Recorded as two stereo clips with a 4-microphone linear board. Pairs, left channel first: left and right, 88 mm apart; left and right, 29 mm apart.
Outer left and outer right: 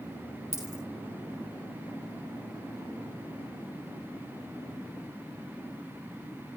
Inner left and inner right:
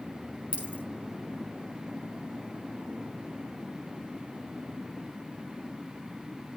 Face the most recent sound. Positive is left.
turn(degrees=-40)  # may be behind; listen again after turning